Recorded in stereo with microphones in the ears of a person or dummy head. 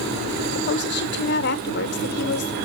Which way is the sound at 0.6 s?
55° left (ahead or behind).